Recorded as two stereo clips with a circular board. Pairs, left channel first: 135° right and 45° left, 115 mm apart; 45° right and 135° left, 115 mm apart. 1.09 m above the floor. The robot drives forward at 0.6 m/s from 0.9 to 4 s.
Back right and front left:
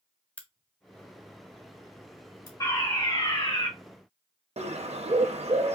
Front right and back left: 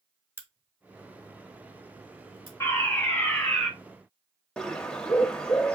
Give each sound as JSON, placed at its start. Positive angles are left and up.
{"t": 0.4, "sound": "a crack", "azimuth_deg": 165, "distance_m": 0.8}
{"t": 2.6, "sound": "a fire alarm", "azimuth_deg": -100, "distance_m": 1.6}
{"t": 4.6, "sound": "a bird", "azimuth_deg": 35, "distance_m": 0.6}